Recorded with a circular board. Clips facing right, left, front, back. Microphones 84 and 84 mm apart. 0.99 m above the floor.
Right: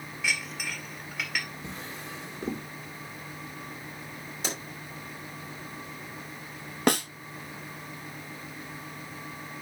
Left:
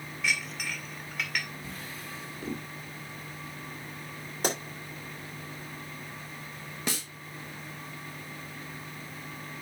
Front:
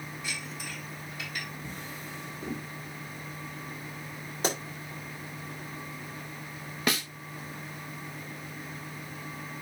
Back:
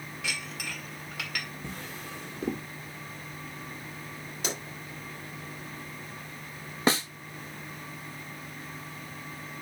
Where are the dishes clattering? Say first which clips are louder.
Even, back 4 dB; 175° right, 1.7 m.